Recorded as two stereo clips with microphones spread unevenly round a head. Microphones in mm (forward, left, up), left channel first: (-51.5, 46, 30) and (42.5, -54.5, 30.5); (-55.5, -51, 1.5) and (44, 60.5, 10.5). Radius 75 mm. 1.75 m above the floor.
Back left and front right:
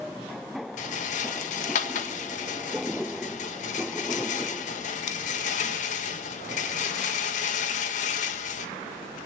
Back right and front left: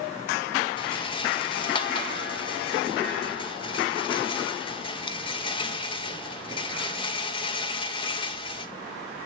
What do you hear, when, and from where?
0.8 s a rattle: 170° left, 2.0 m